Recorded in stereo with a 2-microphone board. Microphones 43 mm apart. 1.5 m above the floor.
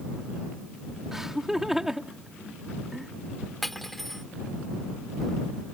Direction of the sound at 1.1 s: 10° right (ahead or behind).